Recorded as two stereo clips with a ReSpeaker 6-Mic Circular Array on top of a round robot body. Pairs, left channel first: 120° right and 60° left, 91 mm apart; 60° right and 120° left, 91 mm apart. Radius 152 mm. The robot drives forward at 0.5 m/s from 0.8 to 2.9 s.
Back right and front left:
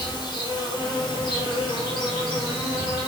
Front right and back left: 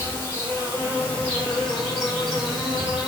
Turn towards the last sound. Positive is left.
turn(degrees=-155)